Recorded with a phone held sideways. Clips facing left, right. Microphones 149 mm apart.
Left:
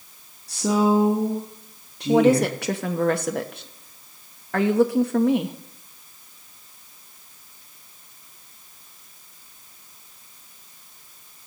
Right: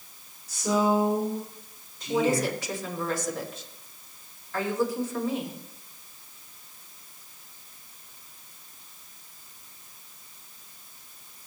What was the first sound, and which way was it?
A woman speaking, 75° left (ahead or behind).